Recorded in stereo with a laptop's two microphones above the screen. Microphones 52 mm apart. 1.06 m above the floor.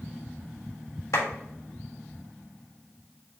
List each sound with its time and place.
1.1 s a clap: 75° left (ahead or behind), 1.3 m